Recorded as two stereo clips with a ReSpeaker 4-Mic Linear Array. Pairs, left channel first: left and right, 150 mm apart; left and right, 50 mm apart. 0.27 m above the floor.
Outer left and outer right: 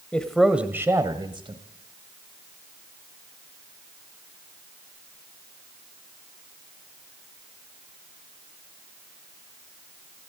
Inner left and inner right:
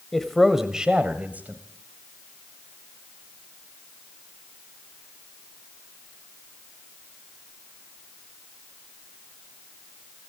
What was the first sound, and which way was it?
A man speaking, 10° left (ahead or behind).